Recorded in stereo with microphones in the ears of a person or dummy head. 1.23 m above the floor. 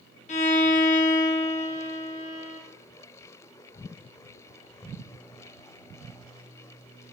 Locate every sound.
0.3 s a violin: 35° left (ahead or behind), 0.6 m